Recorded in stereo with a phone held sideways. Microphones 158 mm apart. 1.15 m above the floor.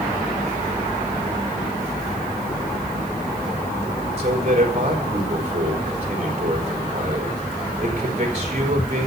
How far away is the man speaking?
About 4.5 m.